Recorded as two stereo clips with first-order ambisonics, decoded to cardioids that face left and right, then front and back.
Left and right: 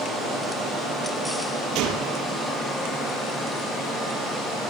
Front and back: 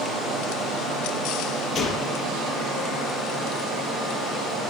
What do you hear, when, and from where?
1.8 s a gunshot: 55° right, 6.5 m